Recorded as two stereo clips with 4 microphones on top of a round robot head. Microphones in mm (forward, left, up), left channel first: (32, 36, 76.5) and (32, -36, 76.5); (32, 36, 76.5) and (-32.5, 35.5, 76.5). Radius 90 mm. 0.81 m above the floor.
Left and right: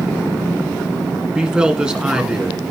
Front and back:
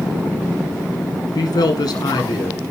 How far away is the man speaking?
About 2.5 m.